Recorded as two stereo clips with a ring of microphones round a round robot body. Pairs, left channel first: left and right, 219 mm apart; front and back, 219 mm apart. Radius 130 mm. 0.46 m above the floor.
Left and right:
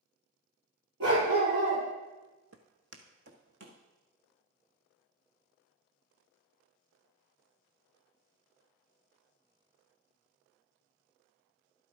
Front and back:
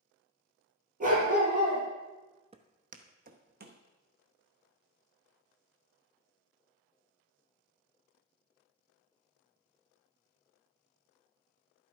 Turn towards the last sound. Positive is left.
turn(degrees=-140)